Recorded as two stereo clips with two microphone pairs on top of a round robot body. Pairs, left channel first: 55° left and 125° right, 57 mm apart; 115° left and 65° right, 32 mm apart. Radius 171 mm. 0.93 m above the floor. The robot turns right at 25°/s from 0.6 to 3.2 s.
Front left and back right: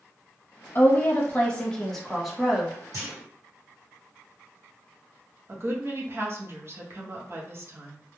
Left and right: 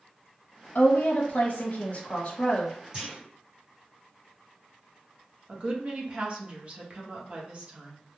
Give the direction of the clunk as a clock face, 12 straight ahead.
4 o'clock.